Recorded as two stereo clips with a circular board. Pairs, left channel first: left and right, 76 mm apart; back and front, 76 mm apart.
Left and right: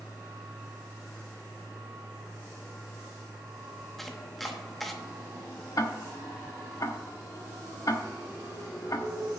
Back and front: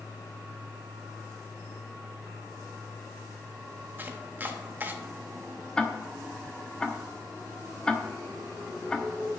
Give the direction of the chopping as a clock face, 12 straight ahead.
12 o'clock.